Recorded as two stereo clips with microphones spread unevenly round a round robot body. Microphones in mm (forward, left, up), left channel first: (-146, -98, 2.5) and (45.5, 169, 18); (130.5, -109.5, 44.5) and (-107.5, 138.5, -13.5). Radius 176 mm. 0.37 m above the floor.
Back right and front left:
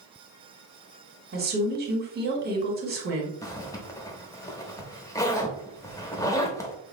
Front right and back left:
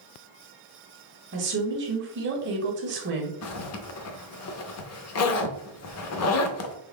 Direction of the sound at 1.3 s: 105° left.